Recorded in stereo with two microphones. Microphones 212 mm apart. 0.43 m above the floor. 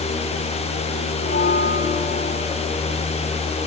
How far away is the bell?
About 4 m.